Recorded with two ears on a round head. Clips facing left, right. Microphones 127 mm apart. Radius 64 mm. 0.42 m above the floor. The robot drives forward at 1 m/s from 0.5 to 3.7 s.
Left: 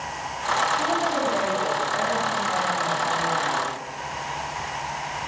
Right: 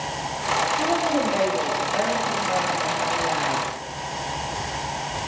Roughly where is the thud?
No thud in this recording.